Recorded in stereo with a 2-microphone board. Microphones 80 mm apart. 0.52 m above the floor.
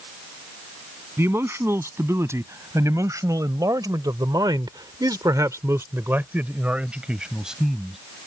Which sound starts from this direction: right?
A man speaking, at 1.2 s.